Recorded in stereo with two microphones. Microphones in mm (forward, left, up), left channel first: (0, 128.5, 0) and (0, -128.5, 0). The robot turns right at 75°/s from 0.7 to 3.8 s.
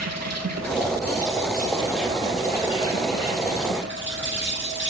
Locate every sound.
0.0 s an insect: 100° right, 3 m; by 4.9 s 135° left, 3 m